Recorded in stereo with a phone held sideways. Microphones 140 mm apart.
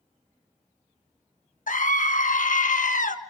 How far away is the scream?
About 1.4 m.